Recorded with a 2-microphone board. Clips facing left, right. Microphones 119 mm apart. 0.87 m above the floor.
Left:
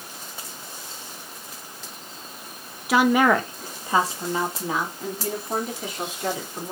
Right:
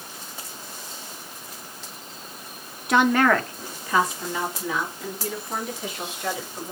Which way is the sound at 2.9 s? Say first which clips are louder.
Left 1 dB; centre (ahead or behind).